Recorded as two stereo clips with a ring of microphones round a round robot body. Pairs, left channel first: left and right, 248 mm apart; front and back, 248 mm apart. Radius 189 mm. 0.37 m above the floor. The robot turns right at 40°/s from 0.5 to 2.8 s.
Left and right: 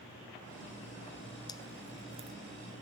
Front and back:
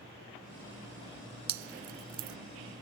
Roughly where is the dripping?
Behind.